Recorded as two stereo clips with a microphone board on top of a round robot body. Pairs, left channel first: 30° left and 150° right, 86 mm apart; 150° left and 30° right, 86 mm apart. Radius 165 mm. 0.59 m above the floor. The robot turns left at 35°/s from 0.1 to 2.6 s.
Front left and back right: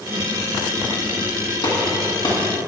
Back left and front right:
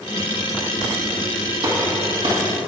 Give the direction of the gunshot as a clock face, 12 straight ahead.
12 o'clock.